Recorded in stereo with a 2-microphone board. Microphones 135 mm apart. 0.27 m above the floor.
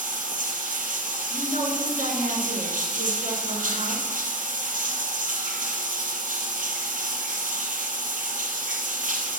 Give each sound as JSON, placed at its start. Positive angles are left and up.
{"t": 0.0, "sound": "running water", "side_deg": -80, "distance_m": 1.5}
{"t": 1.3, "sound": "a woman speaking", "side_deg": -60, "distance_m": 3.0}